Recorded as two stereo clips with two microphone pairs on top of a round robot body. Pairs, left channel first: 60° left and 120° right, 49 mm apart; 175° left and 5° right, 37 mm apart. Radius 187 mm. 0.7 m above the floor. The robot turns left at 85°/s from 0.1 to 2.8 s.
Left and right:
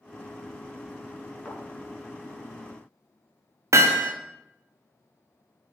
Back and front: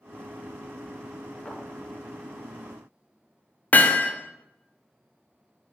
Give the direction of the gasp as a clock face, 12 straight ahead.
No gasp in this recording.